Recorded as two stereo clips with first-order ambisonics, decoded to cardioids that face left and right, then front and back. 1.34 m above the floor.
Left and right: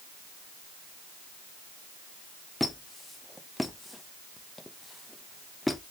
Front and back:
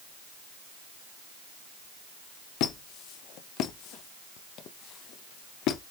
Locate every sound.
2.6 s a squeak: 5° left, 0.6 m